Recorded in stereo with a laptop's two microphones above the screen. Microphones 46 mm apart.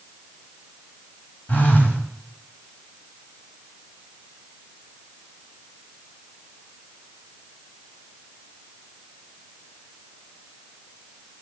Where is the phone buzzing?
40° left (ahead or behind), 1.4 m.